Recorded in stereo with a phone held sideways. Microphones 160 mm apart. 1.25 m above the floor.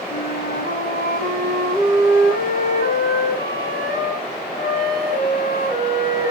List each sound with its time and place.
0.1 s a flute: 85° left, 5.5 m